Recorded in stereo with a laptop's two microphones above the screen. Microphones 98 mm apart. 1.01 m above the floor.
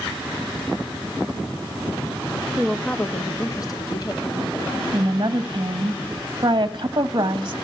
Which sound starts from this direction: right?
A woman speaking, at 4.9 s.